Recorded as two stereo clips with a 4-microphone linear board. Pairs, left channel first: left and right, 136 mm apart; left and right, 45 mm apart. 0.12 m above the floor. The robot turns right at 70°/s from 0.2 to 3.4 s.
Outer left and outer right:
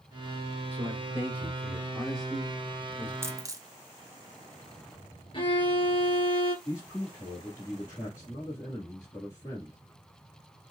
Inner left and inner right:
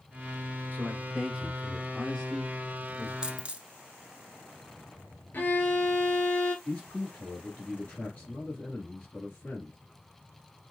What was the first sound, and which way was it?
A man speaking, 35° right (ahead or behind).